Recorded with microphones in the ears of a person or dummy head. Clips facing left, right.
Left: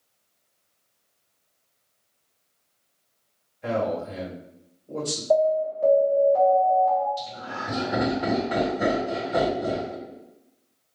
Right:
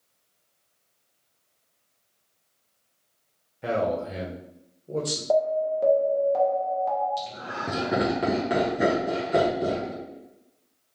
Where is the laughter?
65° right (ahead or behind), 1.2 m.